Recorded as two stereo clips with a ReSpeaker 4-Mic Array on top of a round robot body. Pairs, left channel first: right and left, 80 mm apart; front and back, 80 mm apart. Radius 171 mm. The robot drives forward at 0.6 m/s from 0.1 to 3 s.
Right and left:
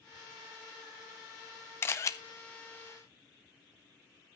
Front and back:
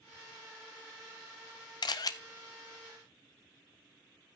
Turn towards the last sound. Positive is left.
turn(degrees=-120)